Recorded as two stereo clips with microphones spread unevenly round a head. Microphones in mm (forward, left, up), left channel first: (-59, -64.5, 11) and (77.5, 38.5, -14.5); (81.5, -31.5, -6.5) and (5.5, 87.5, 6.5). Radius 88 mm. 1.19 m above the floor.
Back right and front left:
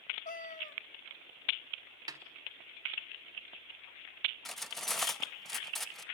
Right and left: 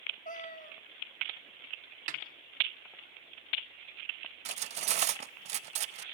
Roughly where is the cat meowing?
Right.